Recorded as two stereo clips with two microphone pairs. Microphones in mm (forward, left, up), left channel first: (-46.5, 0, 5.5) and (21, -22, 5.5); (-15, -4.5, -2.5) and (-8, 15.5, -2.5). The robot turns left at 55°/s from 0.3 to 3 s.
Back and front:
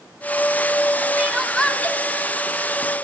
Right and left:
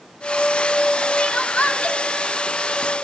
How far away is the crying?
About 1.0 m.